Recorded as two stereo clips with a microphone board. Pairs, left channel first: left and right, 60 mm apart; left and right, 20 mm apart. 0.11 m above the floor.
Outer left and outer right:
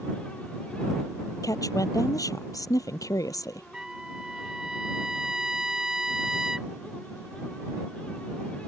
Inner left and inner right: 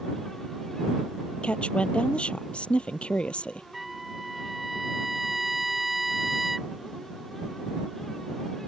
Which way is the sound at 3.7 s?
10° right (ahead or behind).